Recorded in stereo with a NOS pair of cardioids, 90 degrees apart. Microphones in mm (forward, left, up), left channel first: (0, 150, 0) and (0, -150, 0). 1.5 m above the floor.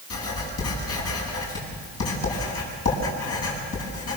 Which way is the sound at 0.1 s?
55° left.